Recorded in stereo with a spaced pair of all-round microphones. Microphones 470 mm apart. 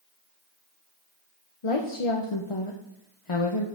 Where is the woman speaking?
75° left (ahead or behind), 0.8 m.